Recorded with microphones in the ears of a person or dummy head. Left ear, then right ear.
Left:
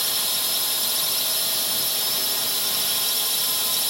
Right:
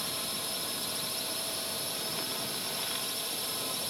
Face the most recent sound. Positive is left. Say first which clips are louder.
# left 10 dB
turn(degrees=40)  # may be behind; listen again after turning